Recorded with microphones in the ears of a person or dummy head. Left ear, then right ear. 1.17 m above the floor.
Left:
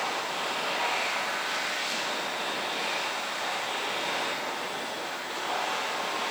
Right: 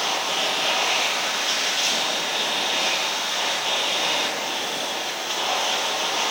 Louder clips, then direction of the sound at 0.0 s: Right 7 dB; 45° right (ahead or behind).